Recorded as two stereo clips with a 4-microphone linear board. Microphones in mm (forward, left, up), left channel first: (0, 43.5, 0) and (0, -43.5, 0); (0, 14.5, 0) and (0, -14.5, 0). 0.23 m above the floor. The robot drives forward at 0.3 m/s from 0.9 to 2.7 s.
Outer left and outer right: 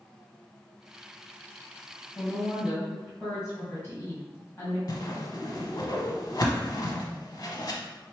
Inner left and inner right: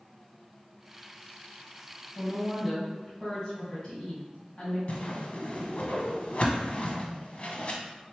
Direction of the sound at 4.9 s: 50° left (ahead or behind).